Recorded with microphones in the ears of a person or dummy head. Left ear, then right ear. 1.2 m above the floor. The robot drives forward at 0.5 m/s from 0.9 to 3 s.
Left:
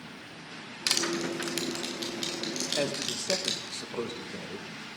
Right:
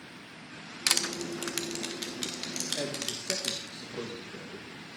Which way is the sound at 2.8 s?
35° left (ahead or behind).